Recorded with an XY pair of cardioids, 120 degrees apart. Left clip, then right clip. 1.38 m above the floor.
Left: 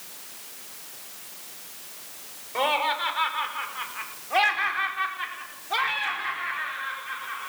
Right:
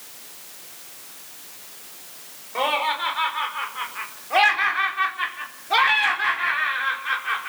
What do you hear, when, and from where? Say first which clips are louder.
2.5 s laughter: right 2 dB; straight ahead, 5 m; by 7.5 s 55° right, 4.5 m